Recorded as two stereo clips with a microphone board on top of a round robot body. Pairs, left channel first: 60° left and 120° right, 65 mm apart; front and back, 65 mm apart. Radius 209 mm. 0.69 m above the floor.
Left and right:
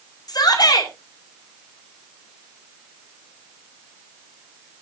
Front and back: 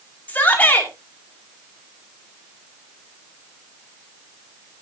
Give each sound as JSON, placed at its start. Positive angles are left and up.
{"t": 0.3, "sound": "a shout", "azimuth_deg": 65, "distance_m": 5.0}